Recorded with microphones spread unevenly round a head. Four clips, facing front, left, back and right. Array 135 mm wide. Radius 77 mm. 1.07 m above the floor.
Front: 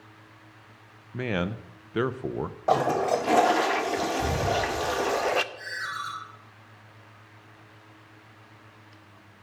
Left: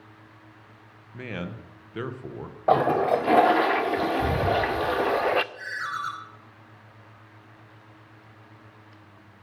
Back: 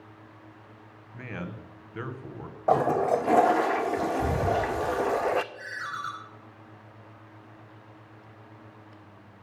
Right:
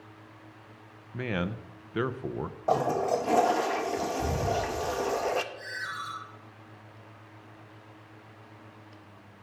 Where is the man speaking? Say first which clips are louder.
Right 3 dB, front 9 dB; 40° right, 0.7 m.